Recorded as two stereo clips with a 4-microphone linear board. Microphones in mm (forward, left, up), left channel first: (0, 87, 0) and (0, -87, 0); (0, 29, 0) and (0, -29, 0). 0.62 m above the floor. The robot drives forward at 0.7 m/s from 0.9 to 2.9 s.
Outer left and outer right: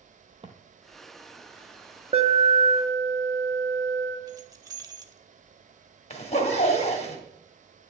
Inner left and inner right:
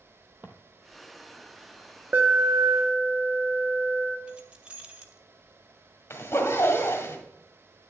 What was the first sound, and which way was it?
Footsteps, 35° right (ahead or behind).